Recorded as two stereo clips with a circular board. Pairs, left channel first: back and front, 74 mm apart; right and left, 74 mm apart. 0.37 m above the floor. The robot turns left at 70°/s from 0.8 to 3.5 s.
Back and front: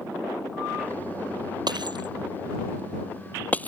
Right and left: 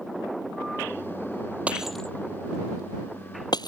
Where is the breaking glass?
20° left; by 3.7 s 110° right.